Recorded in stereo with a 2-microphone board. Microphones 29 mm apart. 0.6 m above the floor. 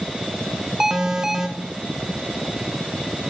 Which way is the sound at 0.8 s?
20° right (ahead or behind).